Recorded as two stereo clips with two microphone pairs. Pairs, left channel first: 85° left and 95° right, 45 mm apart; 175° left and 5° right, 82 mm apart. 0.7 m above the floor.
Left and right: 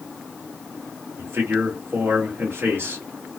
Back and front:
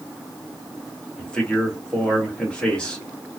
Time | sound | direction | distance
1.2 | a man speaking | 110° right | 1.4 m